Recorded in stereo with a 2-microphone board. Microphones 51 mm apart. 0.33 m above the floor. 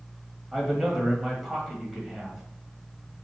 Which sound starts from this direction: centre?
A man speaking, at 0.5 s.